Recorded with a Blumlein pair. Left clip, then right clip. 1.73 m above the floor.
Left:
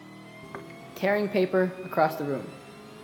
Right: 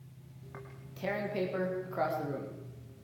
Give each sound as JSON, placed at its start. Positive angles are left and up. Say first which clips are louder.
{"t": 0.4, "sound": "tearing paper", "louder": "left 8 dB", "azimuth_deg": 30, "distance_m": 1.7}